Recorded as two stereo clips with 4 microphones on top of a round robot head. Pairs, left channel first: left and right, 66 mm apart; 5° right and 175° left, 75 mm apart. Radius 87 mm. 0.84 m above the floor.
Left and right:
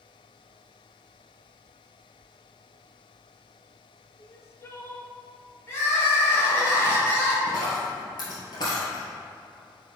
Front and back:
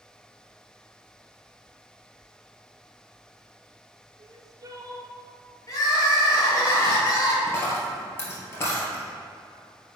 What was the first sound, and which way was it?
Crying, 140° left.